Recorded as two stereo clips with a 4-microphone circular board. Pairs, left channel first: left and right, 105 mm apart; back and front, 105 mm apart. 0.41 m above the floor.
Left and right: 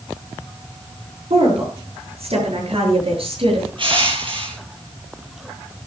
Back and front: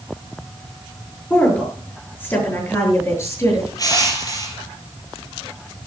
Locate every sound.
1.3 s a woman speaking: 105° right, 7.5 m; by 3.7 s 120° right, 9 m
3.8 s crushing: 125° right, 5.5 m